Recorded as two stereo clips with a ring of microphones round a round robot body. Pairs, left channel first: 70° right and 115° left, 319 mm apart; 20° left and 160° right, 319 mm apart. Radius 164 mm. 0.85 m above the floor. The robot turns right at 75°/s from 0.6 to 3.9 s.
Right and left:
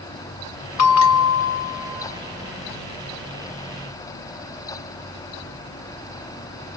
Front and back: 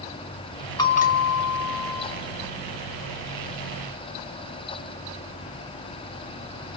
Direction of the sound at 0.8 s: 55° right.